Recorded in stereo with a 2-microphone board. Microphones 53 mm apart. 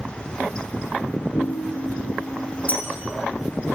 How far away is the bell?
About 0.9 m.